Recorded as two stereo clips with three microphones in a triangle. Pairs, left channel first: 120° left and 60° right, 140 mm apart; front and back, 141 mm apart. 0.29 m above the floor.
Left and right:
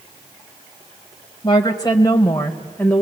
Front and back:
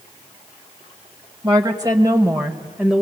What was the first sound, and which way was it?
A woman speaking, 155° left.